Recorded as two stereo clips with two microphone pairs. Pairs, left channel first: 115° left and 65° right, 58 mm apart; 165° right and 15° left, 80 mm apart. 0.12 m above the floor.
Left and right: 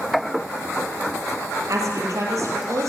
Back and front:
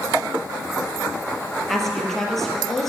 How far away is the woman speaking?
About 2.5 m.